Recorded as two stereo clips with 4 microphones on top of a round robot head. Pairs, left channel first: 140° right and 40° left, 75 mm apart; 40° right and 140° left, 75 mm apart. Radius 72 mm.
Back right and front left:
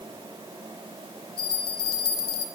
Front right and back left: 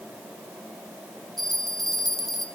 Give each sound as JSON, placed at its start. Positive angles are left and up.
{"t": 1.4, "sound": "a bell", "azimuth_deg": -125, "distance_m": 1.9}